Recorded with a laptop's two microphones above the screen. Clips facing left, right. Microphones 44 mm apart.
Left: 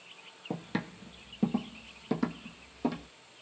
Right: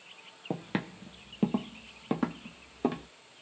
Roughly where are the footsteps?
Right.